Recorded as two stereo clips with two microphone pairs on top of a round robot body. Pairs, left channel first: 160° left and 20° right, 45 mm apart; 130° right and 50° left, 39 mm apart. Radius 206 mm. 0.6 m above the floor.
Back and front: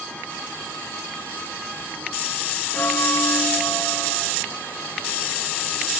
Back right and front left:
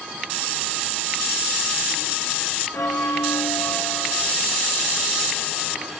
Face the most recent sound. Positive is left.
turn(degrees=-155)